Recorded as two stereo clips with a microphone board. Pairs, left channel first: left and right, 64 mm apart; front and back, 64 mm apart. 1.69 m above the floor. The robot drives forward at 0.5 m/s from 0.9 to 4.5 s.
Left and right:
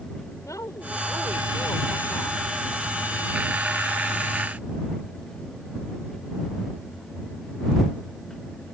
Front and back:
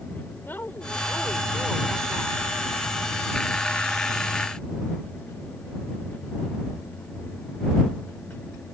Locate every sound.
0.4 s a woman speaking: 55° left; by 2.4 s 60° left